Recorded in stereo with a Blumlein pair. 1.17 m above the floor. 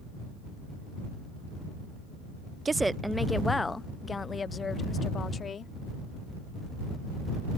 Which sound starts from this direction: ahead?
A woman speaking, at 2.6 s.